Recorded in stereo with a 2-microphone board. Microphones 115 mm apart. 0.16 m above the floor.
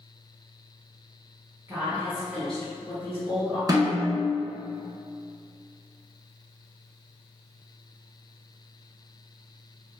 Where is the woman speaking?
25° right (ahead or behind), 1.3 m; by 3.6 s 40° left (ahead or behind), 1.6 m.